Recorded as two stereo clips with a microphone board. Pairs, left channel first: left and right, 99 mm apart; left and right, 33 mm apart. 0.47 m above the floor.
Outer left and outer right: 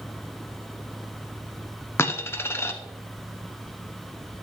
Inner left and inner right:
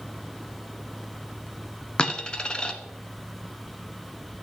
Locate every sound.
2.0 s a dropped coin: 25° left (ahead or behind), 0.6 m